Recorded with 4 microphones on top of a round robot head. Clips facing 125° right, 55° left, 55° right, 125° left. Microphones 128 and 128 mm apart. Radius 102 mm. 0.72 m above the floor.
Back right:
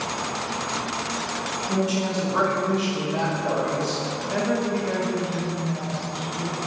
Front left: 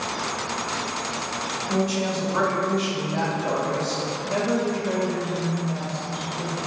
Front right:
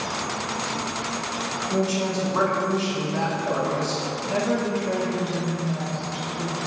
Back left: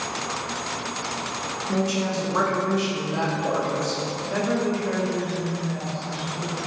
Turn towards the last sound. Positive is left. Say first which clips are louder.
# even, even
turn(degrees=0)